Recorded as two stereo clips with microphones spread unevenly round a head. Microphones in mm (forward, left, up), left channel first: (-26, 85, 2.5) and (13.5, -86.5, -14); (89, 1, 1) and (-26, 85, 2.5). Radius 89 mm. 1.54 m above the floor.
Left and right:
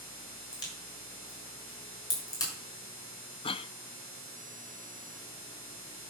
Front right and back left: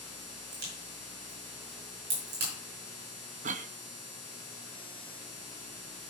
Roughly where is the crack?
Behind.